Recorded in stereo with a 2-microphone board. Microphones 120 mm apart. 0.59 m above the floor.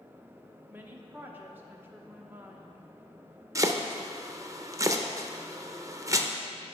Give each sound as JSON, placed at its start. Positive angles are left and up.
{"t": 0.7, "sound": "a woman speaking", "side_deg": -15, "distance_m": 0.8}
{"t": 3.5, "sound": "chopping", "side_deg": -25, "distance_m": 0.5}